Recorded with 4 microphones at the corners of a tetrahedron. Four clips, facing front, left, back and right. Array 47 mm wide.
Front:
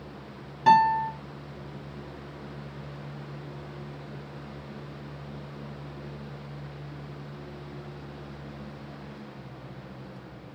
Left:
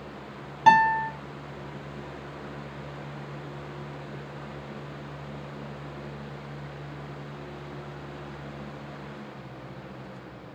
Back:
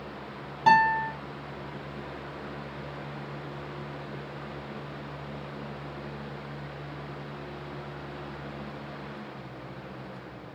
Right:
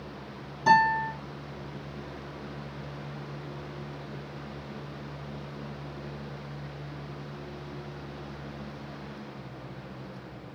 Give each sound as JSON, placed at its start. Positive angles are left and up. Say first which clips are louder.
{"t": 0.7, "sound": "a guitar", "louder": "left 3 dB, front 1 dB", "azimuth_deg": 85, "distance_m": 3.0}